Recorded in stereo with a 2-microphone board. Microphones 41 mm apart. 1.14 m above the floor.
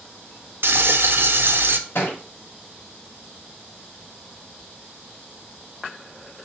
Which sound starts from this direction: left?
A thud, at 1.9 s.